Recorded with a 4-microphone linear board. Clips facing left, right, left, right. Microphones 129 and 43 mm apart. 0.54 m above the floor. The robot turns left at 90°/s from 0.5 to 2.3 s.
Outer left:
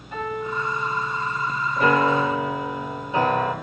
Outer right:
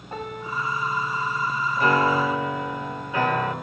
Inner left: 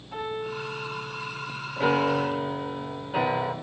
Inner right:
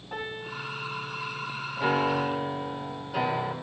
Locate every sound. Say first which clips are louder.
0.1 s a piano: outer left 4 dB, inner left 4 dB; 140° right, 7 m; by 1.5 s 135° left, 7 m
1.8 s a piano: outer left 2 dB, inner left 2 dB; 80° left, 1.8 m; by 3.5 s 35° left, 1.8 m